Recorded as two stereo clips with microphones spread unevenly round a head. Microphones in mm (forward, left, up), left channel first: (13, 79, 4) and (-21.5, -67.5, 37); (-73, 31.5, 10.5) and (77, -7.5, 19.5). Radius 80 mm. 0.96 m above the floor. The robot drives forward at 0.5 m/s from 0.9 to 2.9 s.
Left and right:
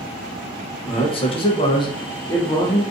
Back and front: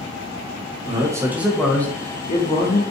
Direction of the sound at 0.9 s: 45° left.